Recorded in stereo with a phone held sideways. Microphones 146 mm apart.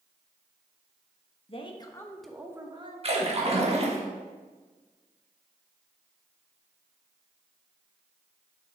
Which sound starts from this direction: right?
A splash, at 3.0 s.